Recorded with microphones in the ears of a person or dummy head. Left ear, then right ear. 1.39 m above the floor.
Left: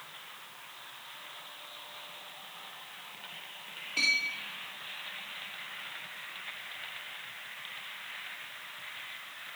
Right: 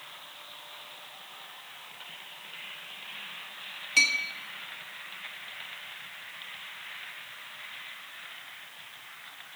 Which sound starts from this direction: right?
A clink, at 4.0 s.